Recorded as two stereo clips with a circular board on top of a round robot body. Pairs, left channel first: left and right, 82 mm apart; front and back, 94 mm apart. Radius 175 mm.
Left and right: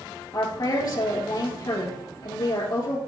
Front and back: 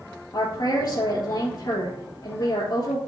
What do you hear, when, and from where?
0.3 s a woman speaking: 50° left, 3 m